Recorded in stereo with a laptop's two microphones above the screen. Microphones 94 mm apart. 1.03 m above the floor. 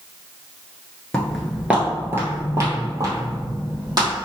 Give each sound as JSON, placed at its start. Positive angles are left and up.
{"t": 1.1, "sound": "footsteps", "side_deg": 10, "distance_m": 1.0}